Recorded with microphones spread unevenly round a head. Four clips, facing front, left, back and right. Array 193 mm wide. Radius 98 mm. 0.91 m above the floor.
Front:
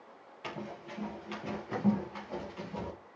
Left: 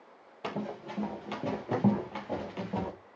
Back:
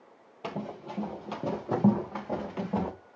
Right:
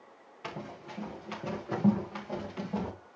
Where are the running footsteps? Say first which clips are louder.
Left 5 dB, back 5 dB; 140° left, 4 m; by 2.9 s 170° left, 3.5 m.